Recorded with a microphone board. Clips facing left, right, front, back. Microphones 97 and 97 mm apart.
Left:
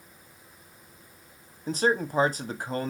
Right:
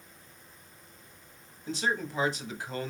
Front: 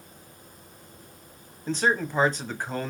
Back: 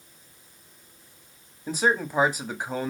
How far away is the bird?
No bird in this recording.